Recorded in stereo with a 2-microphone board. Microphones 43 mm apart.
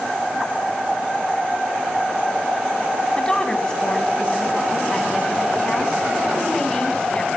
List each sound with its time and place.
3.2 s a woman speaking: 15° left (ahead or behind), 1.9 m